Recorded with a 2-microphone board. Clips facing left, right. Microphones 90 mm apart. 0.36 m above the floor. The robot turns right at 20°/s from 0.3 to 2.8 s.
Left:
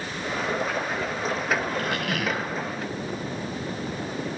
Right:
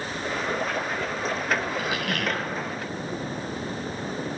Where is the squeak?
5° right (ahead or behind), 0.7 m; by 2.5 s 10° left (ahead or behind), 0.7 m.